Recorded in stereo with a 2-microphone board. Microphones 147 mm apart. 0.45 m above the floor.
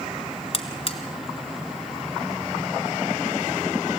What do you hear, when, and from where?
0.5 s a buzzer: 45° left (ahead or behind), 1.3 m